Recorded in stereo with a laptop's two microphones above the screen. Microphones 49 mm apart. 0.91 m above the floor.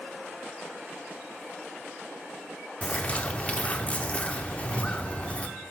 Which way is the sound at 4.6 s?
55° left (ahead or behind).